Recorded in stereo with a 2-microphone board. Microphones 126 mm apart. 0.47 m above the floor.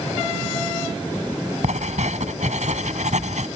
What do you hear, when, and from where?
1.6 s writing: 70° right (ahead or behind)